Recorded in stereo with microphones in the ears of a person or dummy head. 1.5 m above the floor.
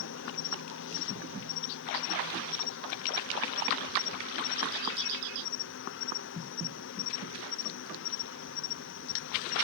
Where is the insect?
55° left (ahead or behind).